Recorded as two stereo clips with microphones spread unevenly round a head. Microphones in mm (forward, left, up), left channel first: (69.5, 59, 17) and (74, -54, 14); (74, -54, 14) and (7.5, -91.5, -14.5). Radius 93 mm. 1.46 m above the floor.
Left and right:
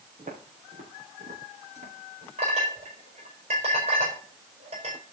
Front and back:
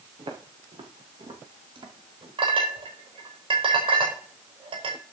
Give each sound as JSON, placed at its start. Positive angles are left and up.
{"t": 0.2, "sound": "footsteps", "azimuth_deg": -145, "distance_m": 3.5}
{"t": 2.4, "sound": "a clink", "azimuth_deg": -145, "distance_m": 5.0}